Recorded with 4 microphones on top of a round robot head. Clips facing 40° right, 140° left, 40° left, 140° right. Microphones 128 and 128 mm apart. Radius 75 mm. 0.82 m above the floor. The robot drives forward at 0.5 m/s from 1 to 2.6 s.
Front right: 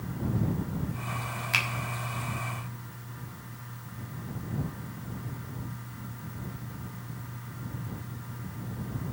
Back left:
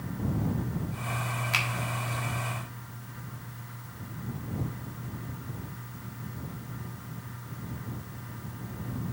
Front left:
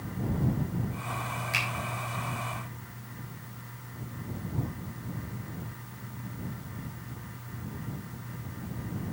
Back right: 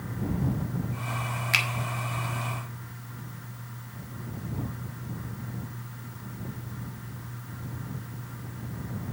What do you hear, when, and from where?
1.5 s a finger snap: 130° right, 1.5 m